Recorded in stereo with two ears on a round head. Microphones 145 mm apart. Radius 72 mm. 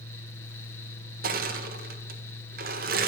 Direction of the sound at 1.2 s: 60° right (ahead or behind).